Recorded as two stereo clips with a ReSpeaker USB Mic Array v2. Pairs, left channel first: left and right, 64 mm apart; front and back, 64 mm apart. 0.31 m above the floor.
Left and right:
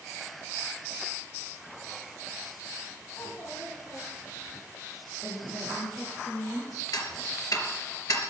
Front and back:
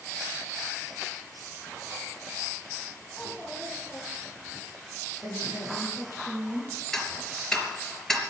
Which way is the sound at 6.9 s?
80° left.